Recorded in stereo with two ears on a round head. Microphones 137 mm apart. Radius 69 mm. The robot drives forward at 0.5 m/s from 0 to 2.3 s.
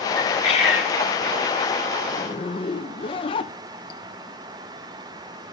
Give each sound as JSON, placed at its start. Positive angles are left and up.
{"t": 0.1, "sound": "a bird", "side_deg": 40, "distance_m": 5.0}
{"t": 2.1, "sound": "a zipper", "side_deg": 30, "distance_m": 1.0}